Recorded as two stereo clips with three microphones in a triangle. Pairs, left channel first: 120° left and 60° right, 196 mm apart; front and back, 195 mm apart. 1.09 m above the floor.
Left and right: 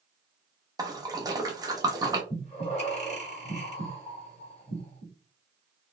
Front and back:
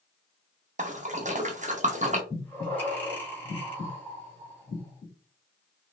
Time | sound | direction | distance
0.8 | a splash | 130° right | 0.6 m
2.3 | breathing | 75° left | 1.2 m